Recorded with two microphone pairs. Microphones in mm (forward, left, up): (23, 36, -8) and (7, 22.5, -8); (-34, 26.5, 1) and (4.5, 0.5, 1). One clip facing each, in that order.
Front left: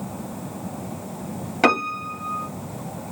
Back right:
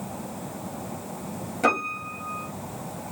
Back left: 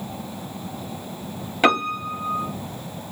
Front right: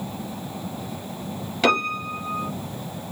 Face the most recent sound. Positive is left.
turn(degrees=80)